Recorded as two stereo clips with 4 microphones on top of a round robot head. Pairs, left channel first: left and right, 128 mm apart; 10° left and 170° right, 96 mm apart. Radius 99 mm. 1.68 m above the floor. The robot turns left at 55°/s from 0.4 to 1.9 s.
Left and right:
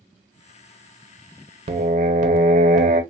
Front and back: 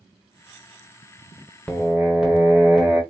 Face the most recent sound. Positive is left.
turn(degrees=-85)